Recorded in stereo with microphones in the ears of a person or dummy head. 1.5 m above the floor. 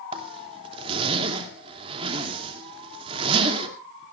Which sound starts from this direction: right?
A zipper, at 0.1 s.